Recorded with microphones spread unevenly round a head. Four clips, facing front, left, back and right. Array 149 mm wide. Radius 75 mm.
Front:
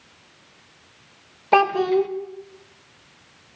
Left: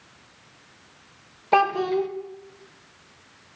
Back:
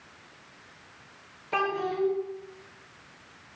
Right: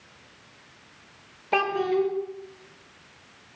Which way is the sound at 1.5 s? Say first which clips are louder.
Left 3 dB, front 11 dB; 15° left.